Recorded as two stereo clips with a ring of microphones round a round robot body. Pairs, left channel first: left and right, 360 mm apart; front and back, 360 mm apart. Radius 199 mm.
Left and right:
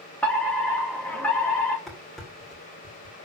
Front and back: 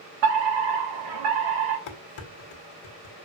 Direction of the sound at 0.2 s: 175° left.